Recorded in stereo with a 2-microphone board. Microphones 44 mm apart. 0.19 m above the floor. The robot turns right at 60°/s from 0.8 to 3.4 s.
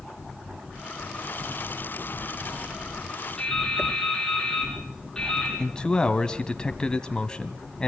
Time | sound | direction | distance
3.4 | dripping | 10° left (ahead or behind) | 8.5 m
5.6 | a man speaking | 20° left (ahead or behind) | 1.0 m